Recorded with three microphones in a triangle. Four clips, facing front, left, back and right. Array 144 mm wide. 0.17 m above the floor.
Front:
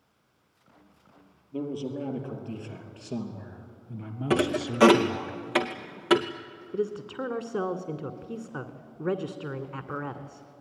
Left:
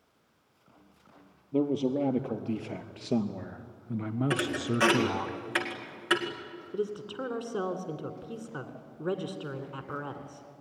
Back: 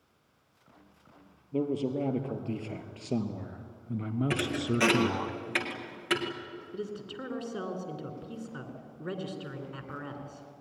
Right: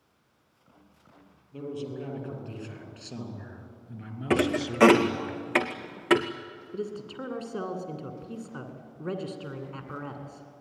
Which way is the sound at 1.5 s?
110° left.